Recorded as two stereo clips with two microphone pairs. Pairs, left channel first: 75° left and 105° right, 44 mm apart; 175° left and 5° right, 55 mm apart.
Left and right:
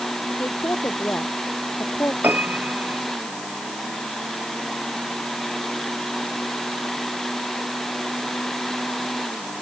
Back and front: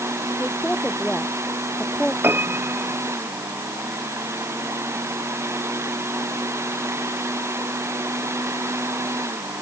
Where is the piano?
55° right.